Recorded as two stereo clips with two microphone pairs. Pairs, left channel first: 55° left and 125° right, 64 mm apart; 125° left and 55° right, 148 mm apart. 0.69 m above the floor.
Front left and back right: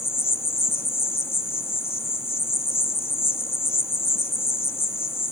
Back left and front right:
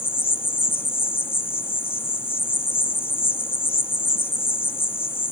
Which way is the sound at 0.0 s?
65° left.